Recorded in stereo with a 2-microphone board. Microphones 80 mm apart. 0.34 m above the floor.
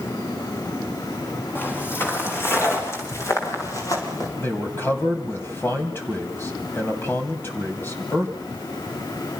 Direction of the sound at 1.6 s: 30° left (ahead or behind).